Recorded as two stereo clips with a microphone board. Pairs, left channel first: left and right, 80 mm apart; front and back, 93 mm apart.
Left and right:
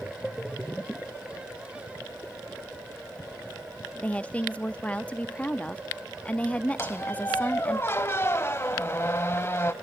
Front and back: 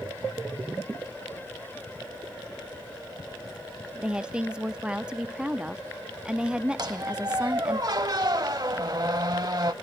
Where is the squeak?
145° left, 0.7 m.